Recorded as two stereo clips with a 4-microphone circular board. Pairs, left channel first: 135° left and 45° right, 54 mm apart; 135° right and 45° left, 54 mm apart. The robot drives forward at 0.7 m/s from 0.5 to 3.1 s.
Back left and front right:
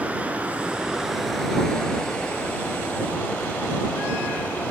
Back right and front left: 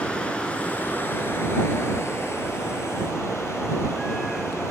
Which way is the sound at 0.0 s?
85° right.